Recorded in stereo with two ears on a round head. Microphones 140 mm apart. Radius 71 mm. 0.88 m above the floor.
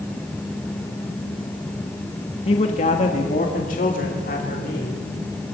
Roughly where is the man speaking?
Left.